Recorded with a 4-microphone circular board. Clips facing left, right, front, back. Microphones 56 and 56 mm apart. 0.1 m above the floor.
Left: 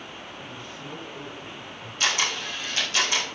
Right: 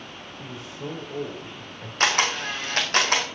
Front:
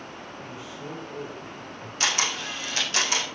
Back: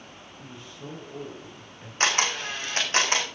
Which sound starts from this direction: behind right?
A camera shutter, at 2.0 s.